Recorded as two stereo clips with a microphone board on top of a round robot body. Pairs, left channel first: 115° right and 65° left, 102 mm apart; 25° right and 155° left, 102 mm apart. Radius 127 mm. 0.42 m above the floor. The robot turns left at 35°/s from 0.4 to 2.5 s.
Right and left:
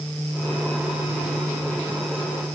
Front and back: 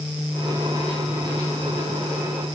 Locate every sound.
Only background noise.